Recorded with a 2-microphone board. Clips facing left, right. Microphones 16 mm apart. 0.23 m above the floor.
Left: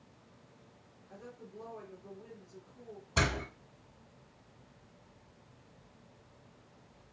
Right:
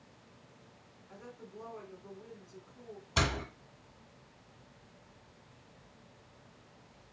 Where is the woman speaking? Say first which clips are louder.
Even; 40° right (ahead or behind), 2 m.